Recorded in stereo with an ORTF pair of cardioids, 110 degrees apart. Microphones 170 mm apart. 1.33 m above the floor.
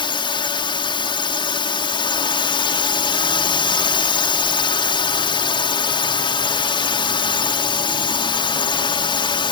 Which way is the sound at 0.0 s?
30° left.